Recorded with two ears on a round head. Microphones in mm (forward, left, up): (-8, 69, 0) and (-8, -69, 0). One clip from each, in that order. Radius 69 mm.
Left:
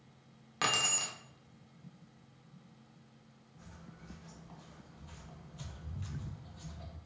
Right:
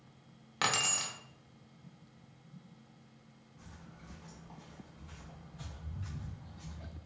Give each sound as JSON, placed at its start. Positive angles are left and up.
{"t": 0.6, "sound": "keys jangling", "side_deg": -5, "distance_m": 0.6}
{"t": 3.6, "sound": "footsteps", "side_deg": -5, "distance_m": 1.4}